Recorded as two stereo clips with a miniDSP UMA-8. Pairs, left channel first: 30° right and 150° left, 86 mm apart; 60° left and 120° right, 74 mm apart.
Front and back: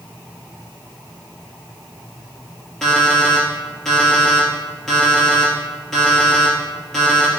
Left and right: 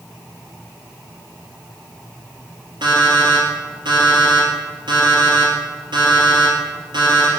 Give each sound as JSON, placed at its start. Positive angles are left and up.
{"t": 2.8, "sound": "an alarm clock", "azimuth_deg": -115, "distance_m": 3.5}